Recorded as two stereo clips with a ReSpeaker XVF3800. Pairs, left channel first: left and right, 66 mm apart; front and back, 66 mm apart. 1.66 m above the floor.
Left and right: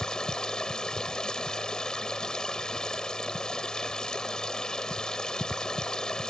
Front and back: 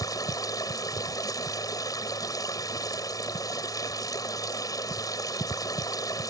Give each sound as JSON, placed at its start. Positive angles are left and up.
{"t": 0.0, "sound": "running water", "azimuth_deg": 10}